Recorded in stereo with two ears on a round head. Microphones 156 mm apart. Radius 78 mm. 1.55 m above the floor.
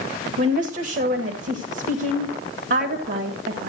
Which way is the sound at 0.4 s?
60° right (ahead or behind).